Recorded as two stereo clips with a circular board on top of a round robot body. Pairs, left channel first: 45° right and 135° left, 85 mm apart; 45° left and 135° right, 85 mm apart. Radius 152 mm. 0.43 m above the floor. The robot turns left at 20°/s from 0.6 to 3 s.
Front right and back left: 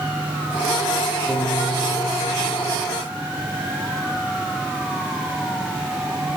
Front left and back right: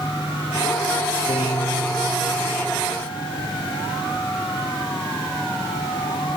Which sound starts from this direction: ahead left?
A piano, at 1.3 s.